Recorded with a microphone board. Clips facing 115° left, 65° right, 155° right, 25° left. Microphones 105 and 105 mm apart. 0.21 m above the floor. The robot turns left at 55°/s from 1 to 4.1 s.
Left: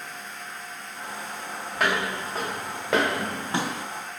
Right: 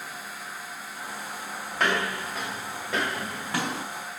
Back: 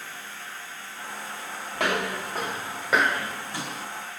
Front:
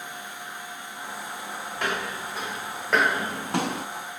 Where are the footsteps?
155° right, 2.5 m; by 3.9 s straight ahead, 0.7 m.